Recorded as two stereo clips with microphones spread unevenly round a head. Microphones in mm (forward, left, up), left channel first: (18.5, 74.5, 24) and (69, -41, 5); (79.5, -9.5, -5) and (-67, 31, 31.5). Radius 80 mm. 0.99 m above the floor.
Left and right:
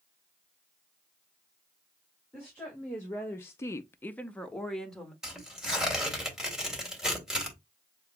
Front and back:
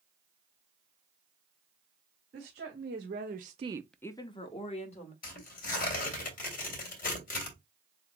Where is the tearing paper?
20° left, 3 m.